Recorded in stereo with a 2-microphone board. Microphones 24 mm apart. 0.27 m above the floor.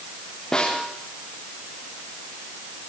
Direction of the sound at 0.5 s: 25° left (ahead or behind).